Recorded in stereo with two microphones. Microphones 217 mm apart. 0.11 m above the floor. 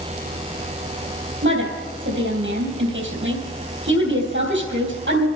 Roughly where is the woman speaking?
Right.